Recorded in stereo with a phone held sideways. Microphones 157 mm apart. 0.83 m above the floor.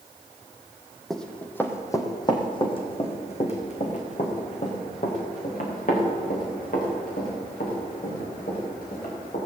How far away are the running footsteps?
About 1.8 m.